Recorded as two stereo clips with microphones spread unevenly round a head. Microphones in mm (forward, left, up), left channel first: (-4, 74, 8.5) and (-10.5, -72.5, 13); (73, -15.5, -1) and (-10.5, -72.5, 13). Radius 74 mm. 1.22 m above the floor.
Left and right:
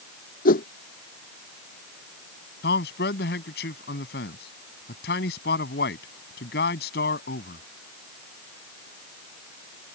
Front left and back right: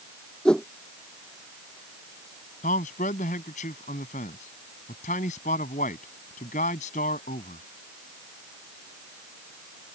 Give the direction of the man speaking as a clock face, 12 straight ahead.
10 o'clock.